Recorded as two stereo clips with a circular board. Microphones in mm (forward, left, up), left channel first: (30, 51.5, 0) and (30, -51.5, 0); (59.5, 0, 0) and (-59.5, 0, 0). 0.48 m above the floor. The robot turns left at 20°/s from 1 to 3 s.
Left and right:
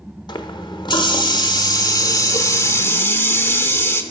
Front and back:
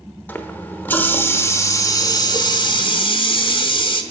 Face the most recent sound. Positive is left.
turn(degrees=25)